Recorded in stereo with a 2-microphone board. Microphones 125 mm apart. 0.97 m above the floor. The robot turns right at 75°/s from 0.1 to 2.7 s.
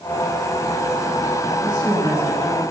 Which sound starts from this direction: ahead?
A woman speaking, at 1.6 s.